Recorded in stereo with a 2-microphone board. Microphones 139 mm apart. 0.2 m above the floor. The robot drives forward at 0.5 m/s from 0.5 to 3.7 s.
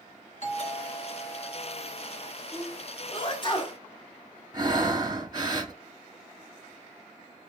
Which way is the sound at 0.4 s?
55° left (ahead or behind).